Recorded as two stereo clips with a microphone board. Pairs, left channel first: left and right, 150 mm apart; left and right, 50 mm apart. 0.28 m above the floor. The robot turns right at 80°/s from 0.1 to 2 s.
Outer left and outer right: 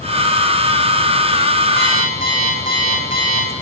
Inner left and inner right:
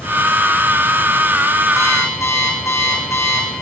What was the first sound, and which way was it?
An alarm clock, 85° left.